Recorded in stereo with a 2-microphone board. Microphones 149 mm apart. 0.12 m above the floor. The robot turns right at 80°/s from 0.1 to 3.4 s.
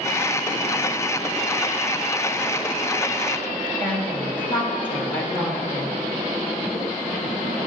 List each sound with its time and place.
3.8 s a woman speaking: 15° left (ahead or behind), 2 m